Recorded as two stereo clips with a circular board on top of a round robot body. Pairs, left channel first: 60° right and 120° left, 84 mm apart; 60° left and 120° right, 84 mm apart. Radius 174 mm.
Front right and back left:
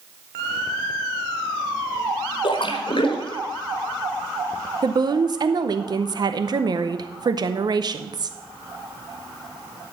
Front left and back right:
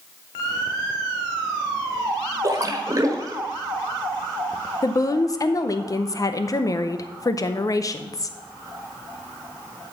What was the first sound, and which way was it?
A splash, 70° right.